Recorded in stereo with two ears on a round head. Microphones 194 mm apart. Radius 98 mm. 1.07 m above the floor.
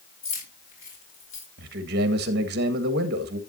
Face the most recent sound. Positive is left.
turn(degrees=-45)  # may be behind; listen again after turning